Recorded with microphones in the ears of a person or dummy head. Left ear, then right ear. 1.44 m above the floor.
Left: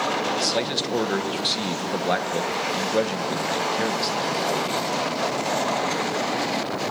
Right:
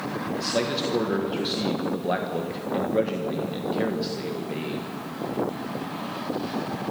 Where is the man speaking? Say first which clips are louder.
Left 2 dB; 35° left (ahead or behind), 1.5 m.